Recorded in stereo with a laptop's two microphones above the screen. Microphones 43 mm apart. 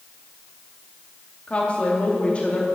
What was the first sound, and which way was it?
A woman speaking, 30° left (ahead or behind).